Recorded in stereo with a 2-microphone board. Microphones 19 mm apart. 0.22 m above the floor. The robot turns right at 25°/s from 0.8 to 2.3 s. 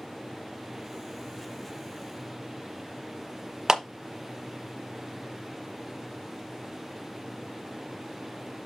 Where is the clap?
30° right (ahead or behind), 1.2 m.